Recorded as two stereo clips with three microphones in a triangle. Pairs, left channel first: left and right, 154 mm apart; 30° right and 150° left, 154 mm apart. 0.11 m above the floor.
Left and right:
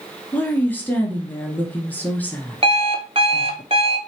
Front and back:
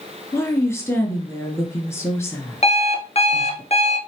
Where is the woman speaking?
25° left, 1.3 m.